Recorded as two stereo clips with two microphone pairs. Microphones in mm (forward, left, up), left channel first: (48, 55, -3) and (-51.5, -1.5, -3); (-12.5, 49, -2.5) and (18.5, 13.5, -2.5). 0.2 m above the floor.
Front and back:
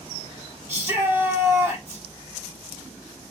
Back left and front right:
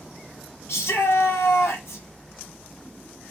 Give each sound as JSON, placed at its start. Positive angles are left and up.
{"t": 0.7, "sound": "a shout", "azimuth_deg": 145, "distance_m": 5.0}